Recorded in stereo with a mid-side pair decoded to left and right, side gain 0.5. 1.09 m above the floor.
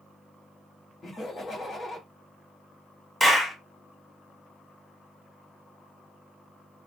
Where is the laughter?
30° left, 1.5 m.